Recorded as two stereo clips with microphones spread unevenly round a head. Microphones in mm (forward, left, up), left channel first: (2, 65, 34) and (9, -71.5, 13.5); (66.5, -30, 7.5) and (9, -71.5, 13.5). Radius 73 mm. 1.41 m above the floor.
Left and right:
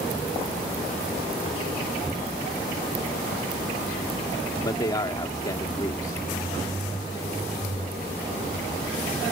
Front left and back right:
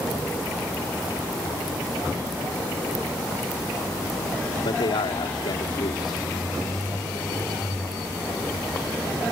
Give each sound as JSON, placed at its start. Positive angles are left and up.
{"t": 4.5, "sound": "a man speaking", "azimuth_deg": 30}